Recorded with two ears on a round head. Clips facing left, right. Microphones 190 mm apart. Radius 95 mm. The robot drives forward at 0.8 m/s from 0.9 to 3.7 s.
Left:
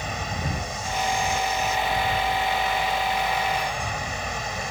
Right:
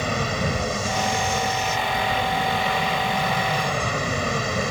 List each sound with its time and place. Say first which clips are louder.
0.0 s an aircraft: right 7 dB; 60° right (ahead or behind)